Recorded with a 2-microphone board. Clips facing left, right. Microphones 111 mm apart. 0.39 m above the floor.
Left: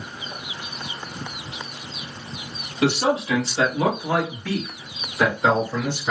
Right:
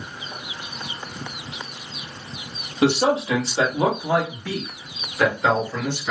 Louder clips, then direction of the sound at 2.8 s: Right 2 dB; 35° right (ahead or behind).